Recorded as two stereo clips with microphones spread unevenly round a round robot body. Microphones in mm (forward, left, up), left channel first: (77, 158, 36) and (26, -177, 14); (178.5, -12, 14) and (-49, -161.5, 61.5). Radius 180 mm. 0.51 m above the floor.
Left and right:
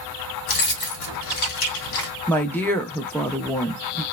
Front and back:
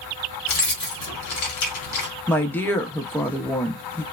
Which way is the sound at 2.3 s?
5° right.